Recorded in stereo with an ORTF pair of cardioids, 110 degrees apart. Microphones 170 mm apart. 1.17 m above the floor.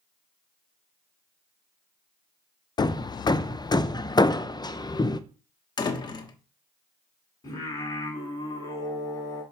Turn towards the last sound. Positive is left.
turn(degrees=20)